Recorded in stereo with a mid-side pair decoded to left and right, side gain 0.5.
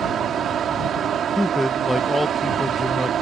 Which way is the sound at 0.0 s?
55° right.